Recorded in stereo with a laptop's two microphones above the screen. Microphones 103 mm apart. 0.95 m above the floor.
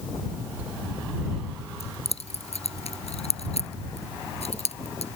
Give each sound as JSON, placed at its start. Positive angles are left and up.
{"t": 1.8, "sound": "keys jangling", "side_deg": 75}